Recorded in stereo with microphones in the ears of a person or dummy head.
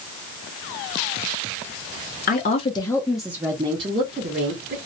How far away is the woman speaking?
About 0.6 m.